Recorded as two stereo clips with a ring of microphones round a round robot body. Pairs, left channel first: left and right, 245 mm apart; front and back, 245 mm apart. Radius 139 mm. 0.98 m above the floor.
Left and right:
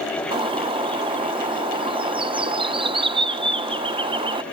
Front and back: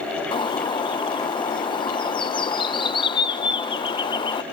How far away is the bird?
About 0.8 m.